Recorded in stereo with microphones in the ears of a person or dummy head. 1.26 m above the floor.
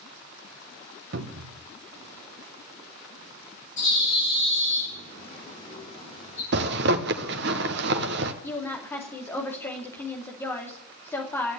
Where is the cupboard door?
60° right (ahead or behind), 0.9 m.